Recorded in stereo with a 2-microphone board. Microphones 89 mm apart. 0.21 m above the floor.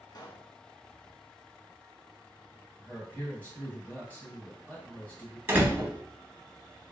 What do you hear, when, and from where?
0.1 s a pop: 50° left (ahead or behind), 0.7 m
2.8 s a man speaking: 20° left (ahead or behind), 1.2 m
5.5 s a door slam: 25° right (ahead or behind), 0.8 m